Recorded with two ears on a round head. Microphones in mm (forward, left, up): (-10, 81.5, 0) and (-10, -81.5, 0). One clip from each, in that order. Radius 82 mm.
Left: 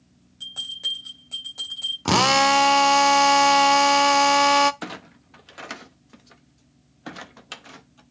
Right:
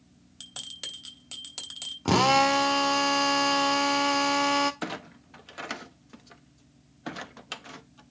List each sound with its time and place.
0.4 s a bell: 65° right (ahead or behind), 3.5 m
2.0 s a drill: 30° left (ahead or behind), 0.6 m
4.8 s a clunk: 5° left (ahead or behind), 0.7 m